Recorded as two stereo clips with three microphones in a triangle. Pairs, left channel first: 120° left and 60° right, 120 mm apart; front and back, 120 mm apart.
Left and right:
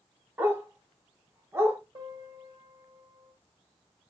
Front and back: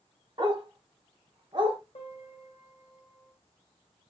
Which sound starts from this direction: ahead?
A piano, at 1.9 s.